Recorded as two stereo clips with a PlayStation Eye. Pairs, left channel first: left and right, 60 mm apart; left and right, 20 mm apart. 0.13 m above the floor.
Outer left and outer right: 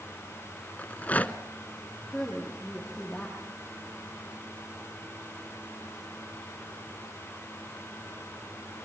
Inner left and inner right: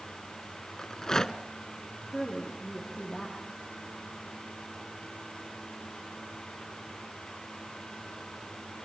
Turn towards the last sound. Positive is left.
turn(degrees=10)  # may be behind; listen again after turning